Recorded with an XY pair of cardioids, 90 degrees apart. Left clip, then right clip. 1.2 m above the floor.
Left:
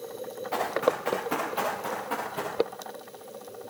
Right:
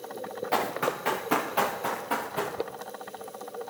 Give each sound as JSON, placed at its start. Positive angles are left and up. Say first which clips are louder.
{"t": 0.5, "sound": "running footsteps", "louder": "left 2 dB", "azimuth_deg": -50, "distance_m": 7.5}